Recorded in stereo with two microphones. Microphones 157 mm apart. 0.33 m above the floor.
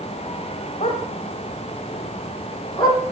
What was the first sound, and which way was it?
A dog barking, 40° left (ahead or behind).